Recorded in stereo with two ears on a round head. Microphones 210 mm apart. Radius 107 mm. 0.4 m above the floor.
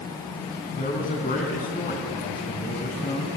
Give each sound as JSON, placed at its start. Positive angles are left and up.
{"t": 0.7, "sound": "a man speaking", "side_deg": 40, "distance_m": 4.0}